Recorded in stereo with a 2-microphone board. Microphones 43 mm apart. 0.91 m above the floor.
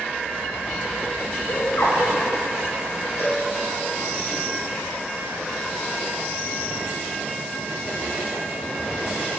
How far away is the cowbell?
About 5 m.